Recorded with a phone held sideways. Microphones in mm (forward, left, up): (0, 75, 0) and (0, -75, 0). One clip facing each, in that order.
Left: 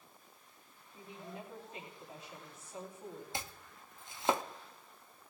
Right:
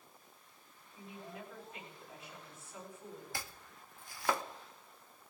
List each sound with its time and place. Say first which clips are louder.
0.9 s a woman speaking: left 1 dB; 35° left (ahead or behind), 9.5 m
3.3 s chopping: left 2 dB; 20° left (ahead or behind), 0.8 m